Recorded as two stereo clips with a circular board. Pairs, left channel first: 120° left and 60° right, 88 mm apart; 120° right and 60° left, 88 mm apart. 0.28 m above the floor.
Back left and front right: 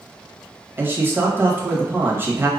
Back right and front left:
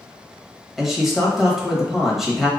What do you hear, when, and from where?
0.8 s a man speaking: 25° right, 1.0 m